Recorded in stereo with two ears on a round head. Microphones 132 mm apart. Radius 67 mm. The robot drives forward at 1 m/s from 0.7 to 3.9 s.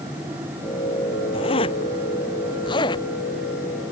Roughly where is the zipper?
Left.